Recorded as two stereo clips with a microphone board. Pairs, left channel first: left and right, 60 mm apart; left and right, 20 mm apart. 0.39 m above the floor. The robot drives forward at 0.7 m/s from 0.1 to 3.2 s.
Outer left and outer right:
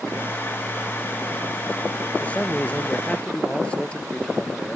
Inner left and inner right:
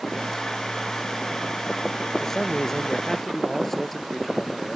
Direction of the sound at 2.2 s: 20° left (ahead or behind).